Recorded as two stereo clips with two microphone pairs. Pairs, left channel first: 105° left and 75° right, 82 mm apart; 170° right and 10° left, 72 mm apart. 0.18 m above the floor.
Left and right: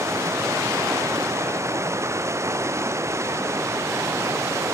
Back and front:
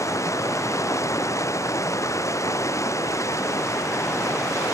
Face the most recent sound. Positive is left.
turn(degrees=-125)